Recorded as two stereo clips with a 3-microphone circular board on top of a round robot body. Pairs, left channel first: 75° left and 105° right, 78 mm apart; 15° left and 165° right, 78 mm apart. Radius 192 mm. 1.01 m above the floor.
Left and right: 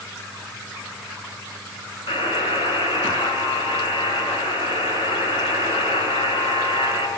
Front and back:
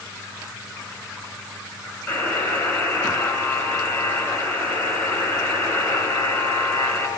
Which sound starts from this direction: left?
A buzzer, at 2.1 s.